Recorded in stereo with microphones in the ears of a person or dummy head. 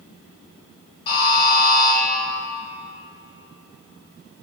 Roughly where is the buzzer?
Left.